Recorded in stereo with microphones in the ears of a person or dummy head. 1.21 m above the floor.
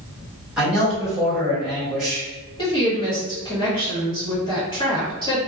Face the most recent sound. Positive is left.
turn(degrees=25)  # may be behind; listen again after turning